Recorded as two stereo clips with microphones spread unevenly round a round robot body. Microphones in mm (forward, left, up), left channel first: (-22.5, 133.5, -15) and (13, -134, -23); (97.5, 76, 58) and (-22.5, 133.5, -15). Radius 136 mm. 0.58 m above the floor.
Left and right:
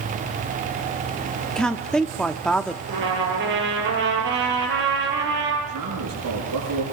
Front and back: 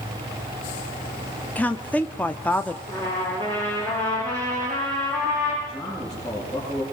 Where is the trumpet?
135° right, 7.5 m.